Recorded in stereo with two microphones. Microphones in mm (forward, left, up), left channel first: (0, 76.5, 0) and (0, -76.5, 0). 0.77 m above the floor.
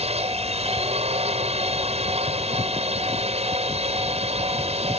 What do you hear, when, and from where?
0.0 s a drone: 40° right (ahead or behind)